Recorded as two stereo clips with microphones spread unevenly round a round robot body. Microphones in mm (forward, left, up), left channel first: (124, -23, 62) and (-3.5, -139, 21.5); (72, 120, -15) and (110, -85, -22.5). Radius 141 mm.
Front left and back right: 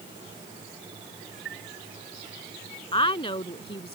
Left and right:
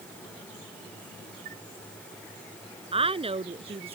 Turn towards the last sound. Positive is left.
turn(degrees=-20)